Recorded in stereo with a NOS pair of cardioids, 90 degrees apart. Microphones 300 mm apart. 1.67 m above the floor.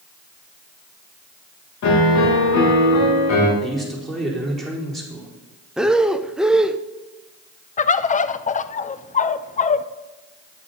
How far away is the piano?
About 2.5 m.